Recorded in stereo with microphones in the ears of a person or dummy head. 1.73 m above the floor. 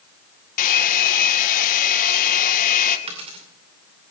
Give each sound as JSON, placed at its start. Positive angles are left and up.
{"t": 0.6, "sound": "a hair dryer", "side_deg": 45, "distance_m": 1.5}
{"t": 3.1, "sound": "a dropped coin", "side_deg": -25, "distance_m": 2.5}